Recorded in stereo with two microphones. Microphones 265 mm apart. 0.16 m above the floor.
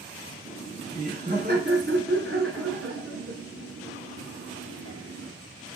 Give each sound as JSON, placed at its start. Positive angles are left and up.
{"t": 0.5, "sound": "laughter", "side_deg": -20, "distance_m": 1.1}